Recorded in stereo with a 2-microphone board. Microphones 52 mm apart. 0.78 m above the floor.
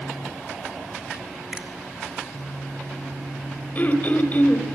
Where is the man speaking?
No man speaking in this recording.